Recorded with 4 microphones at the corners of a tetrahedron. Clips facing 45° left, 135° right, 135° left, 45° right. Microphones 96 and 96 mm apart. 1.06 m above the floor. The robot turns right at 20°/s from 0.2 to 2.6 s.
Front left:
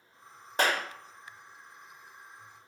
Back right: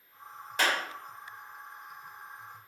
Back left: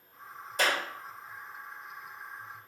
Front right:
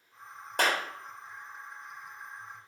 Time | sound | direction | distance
0.6 | a clap | 10° right | 1.3 m